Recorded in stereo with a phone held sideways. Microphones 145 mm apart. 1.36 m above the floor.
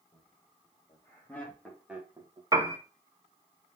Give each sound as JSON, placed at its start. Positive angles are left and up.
{"t": 0.1, "sound": "laughter", "side_deg": 35, "distance_m": 2.0}
{"t": 2.5, "sound": "a piano", "side_deg": -25, "distance_m": 0.6}